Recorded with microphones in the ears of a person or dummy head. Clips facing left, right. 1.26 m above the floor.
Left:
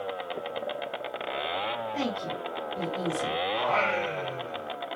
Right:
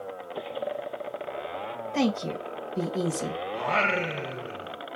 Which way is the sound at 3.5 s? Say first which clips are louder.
Right 1 dB; 25° right (ahead or behind).